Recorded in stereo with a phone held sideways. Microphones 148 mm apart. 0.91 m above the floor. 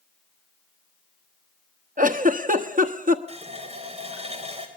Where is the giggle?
65° right (ahead or behind), 1.1 m.